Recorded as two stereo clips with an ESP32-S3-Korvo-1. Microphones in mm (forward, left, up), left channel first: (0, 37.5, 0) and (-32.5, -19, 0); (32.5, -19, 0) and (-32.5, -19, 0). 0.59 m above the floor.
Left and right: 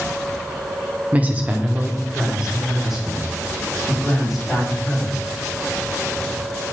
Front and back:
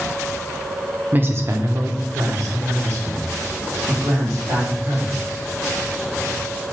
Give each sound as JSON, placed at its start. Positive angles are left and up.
{"t": 1.1, "sound": "a woman speaking", "azimuth_deg": -160, "distance_m": 0.6}